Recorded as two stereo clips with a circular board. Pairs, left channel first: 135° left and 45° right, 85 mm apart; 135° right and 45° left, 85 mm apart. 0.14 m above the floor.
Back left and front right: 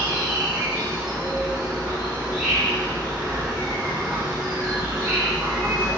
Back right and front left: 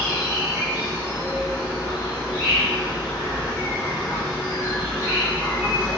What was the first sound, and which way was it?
An insect, 105° right.